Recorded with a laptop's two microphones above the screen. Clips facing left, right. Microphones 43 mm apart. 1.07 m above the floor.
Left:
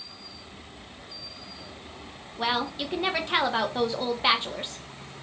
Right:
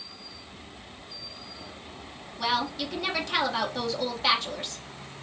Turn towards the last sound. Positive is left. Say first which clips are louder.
# even
turn(degrees=25)  # may be behind; listen again after turning